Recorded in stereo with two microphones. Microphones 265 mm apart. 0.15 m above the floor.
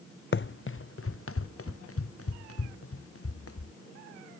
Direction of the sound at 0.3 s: 45° left (ahead or behind).